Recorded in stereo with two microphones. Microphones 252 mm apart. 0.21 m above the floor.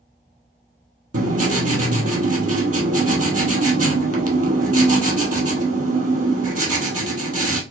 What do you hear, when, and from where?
1.1 s writing: 90° right, 1.0 m